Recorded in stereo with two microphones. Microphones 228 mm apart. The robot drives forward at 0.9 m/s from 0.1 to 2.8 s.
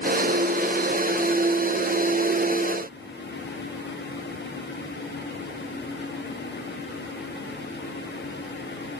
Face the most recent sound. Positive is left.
No sound to turn to.